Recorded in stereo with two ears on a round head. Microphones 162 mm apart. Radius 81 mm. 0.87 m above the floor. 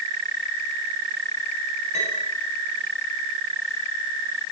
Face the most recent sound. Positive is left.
turn(degrees=35)  # may be behind; listen again after turning